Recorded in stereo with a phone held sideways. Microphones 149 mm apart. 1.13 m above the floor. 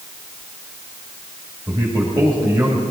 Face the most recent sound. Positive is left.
turn(degrees=-25)  # may be behind; listen again after turning